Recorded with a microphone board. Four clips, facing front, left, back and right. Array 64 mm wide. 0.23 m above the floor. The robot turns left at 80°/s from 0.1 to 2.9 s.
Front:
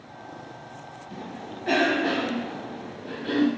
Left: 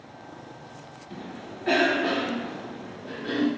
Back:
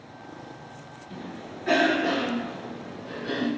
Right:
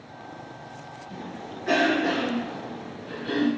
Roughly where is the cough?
Behind left.